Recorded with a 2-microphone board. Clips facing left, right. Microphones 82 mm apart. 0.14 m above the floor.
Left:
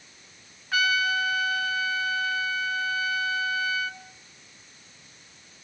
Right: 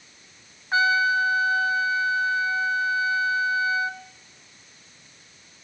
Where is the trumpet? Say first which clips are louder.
Right 4 dB; 30° right (ahead or behind), 0.9 m.